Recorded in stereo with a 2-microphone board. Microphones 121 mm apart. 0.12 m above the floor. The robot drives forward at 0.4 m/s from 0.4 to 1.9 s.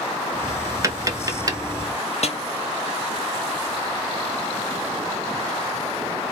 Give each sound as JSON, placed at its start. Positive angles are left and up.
{"t": 0.8, "sound": "tapping", "side_deg": -25, "distance_m": 0.6}
{"t": 2.2, "sound": "a snare drum", "side_deg": 65, "distance_m": 0.6}